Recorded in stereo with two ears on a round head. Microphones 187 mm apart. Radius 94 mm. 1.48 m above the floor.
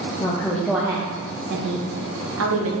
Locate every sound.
0.2 s a woman speaking: 20° left (ahead or behind), 0.7 m; by 2.7 s 70° right (ahead or behind), 1.0 m